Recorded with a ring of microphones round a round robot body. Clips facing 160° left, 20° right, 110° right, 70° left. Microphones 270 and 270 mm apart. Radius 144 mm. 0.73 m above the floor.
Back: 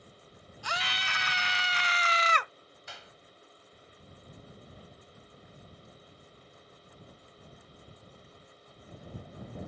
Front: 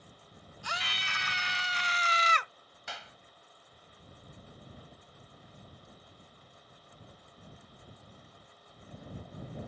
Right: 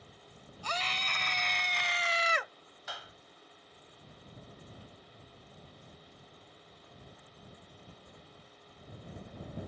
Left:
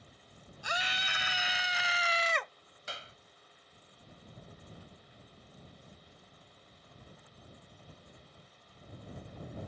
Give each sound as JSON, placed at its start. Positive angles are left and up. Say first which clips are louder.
{"t": 0.6, "sound": "a scream", "louder": "back 4 dB, right 1 dB", "azimuth_deg": 145}
{"t": 2.9, "sound": "a clap", "louder": "front 4 dB, left 1 dB", "azimuth_deg": 5}